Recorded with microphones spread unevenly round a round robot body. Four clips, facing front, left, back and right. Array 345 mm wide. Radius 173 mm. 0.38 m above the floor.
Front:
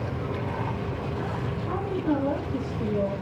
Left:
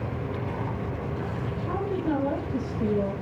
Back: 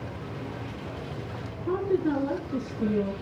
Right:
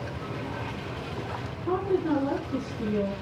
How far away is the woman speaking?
About 7 m.